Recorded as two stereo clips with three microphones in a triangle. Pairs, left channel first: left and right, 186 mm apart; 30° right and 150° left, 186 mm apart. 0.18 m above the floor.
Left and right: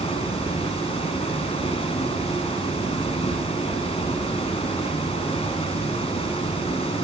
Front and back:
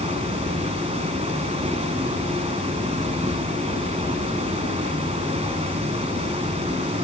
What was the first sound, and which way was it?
Running water, 125° left.